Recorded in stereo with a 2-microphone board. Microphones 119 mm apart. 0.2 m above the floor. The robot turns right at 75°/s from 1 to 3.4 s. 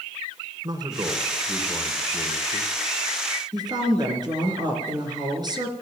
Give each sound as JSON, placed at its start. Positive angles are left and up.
{"t": 0.6, "sound": "a man speaking", "azimuth_deg": -45, "distance_m": 2.0}
{"t": 3.5, "sound": "a woman speaking", "side_deg": -35, "distance_m": 3.5}